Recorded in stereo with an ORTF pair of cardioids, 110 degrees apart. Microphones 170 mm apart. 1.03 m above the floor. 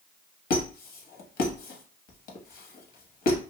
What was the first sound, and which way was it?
A squeak, 60° left.